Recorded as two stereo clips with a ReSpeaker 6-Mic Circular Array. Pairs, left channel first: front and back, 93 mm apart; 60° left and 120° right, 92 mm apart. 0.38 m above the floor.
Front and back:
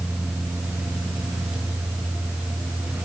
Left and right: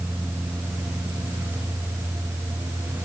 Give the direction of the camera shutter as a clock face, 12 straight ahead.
No camera shutter in this recording.